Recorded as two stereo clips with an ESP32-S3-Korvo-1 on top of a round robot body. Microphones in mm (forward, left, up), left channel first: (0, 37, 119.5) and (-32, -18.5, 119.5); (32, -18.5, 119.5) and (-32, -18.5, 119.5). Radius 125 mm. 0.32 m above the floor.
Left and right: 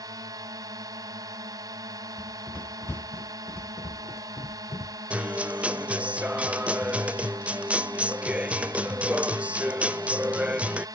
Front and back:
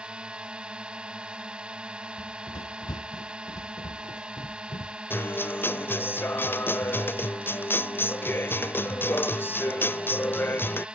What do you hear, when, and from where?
0.0 s a drone: 110° right
2.2 s running footsteps: 10° right; by 5.0 s 15° left
5.1 s a guitar: 50° right